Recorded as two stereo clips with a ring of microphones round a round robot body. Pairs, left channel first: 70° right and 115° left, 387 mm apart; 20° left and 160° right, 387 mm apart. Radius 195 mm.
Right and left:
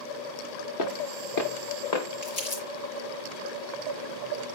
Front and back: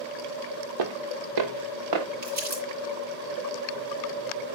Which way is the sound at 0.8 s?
115° right.